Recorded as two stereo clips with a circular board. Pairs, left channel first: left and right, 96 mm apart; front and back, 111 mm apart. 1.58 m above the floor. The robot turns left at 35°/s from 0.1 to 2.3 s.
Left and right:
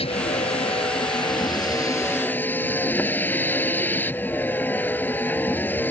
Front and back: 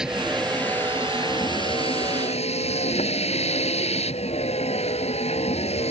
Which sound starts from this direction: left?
A vehicle, at 0.0 s.